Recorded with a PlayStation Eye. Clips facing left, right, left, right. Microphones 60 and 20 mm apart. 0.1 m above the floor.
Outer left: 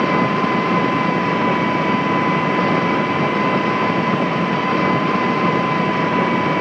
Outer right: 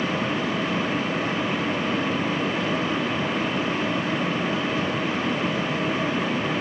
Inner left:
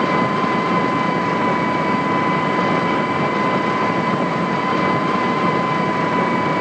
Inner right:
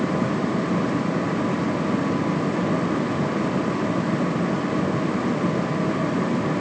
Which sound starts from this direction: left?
An engine running, at 0.0 s.